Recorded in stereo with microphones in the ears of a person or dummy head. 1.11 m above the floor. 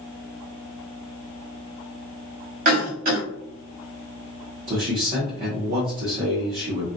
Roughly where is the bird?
No bird in this recording.